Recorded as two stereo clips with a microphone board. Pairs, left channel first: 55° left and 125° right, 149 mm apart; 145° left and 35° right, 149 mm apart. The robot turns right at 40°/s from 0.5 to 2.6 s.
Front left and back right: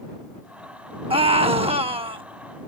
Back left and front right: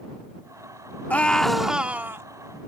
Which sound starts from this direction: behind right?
A scream, at 1.1 s.